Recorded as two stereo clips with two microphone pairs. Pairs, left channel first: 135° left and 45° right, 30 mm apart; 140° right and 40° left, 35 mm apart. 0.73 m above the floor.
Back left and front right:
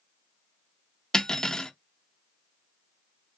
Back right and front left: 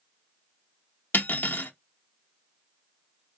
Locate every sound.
1.1 s cutlery clinking: 155° right, 0.6 m